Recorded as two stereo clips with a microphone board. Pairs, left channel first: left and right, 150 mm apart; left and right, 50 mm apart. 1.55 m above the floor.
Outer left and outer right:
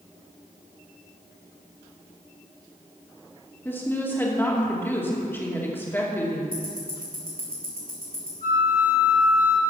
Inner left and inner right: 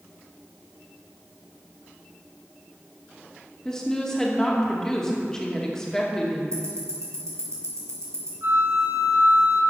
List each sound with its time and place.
3.6 s a woman speaking: 15° left (ahead or behind), 2.5 m
6.5 s ticking: 75° right (ahead or behind), 4.5 m
8.4 s a flute: 60° right (ahead or behind), 2 m